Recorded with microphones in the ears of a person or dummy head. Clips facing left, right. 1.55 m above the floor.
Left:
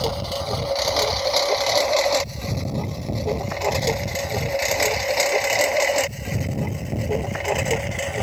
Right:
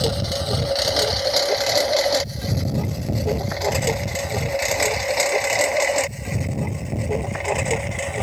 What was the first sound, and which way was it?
A lawn mower, 20° right (ahead or behind).